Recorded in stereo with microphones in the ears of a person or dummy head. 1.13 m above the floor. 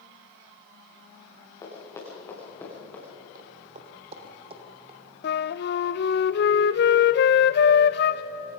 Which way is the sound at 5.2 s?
55° left (ahead or behind).